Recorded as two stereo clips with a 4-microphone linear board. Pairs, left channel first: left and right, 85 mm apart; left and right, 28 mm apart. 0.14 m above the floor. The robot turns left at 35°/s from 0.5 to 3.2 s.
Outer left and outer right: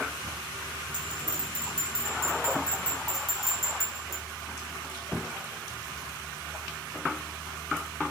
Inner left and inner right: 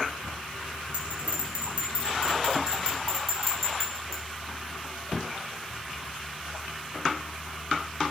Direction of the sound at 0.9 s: 70° right (ahead or behind).